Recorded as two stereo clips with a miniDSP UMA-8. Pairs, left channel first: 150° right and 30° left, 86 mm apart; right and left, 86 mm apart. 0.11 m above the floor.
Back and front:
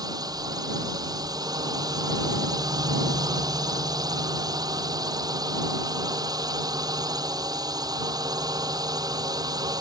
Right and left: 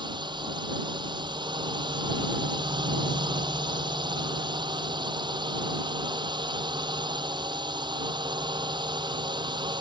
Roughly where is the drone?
Left.